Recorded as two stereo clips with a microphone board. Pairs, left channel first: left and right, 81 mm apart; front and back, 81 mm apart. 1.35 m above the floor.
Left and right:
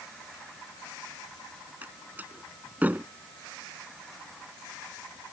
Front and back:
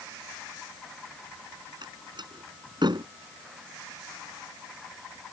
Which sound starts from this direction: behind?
A door slam, at 1.8 s.